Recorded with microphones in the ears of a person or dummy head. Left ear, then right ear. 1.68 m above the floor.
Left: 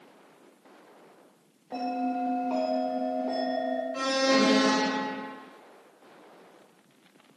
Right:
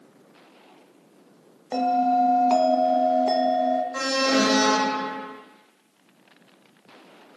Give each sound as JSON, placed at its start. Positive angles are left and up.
{"t": 1.7, "sound": "a bell", "side_deg": -70, "distance_m": 0.6}
{"t": 3.9, "sound": "an alarm", "side_deg": -40, "distance_m": 1.2}